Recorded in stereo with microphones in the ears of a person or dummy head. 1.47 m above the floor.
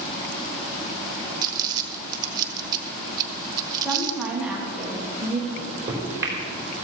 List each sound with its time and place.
1.4 s crumpling: 25° right (ahead or behind), 1.1 m
3.8 s a woman speaking: centre (ahead or behind), 1.4 m
5.5 s a microwave: 15° right (ahead or behind), 3.5 m